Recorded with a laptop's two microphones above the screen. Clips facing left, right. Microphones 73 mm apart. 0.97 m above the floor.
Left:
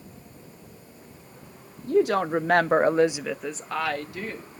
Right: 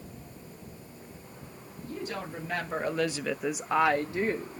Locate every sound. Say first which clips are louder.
1.9 s a woman speaking: left 16 dB; 75° left (ahead or behind), 1.2 m; by 4.6 s 35° right (ahead or behind), 1.7 m